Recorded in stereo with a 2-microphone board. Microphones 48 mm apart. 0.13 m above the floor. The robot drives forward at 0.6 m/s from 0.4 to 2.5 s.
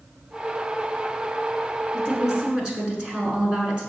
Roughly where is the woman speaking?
Centre.